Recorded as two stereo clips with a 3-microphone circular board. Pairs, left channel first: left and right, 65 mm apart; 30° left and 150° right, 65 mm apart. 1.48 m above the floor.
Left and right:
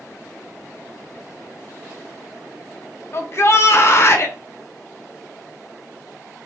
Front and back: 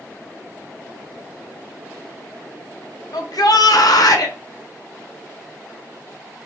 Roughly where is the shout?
Ahead left.